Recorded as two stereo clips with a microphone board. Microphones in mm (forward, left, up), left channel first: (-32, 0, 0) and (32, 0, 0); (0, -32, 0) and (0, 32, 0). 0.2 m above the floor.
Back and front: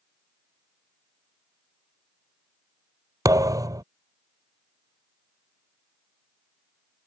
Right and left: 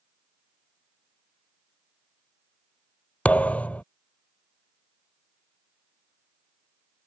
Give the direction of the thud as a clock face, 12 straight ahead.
1 o'clock.